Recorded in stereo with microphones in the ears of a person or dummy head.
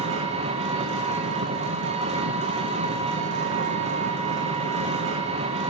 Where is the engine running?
35° right (ahead or behind), 1.2 m.